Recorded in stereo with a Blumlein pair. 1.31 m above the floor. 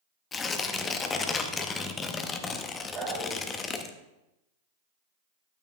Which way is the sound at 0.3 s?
20° left.